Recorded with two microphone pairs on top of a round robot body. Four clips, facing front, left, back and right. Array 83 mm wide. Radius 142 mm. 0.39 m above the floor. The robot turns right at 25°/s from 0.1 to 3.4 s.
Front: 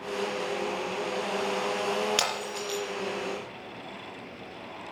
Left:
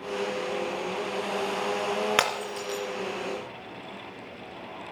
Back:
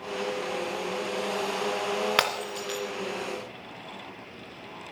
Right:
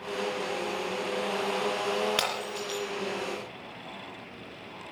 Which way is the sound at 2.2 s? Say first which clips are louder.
Left 4 dB, back 3 dB; 145° left.